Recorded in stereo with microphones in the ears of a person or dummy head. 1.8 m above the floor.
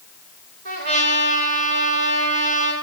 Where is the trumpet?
55° right (ahead or behind), 5 m.